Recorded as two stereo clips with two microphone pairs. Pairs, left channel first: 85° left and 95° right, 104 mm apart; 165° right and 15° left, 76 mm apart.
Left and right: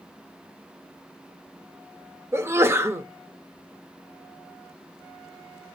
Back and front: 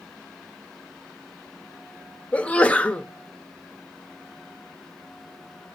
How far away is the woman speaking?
No woman speaking in this recording.